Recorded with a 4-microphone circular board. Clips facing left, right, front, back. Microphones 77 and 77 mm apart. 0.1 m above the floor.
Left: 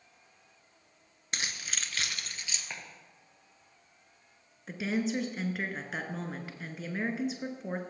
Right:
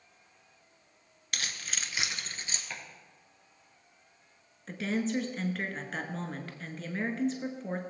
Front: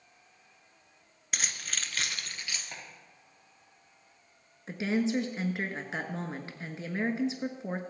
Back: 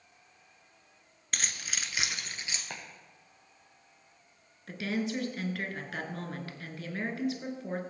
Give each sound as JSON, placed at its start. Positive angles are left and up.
{"t": 1.3, "sound": "keys jangling", "azimuth_deg": 80, "distance_m": 0.8}
{"t": 2.7, "sound": "chopping", "azimuth_deg": 170, "distance_m": 2.5}
{"t": 4.7, "sound": "a woman speaking", "azimuth_deg": 15, "distance_m": 1.1}